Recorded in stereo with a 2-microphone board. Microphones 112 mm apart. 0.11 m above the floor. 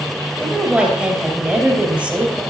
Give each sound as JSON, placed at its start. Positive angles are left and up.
{"t": 0.4, "sound": "a woman speaking", "side_deg": -10, "distance_m": 2.5}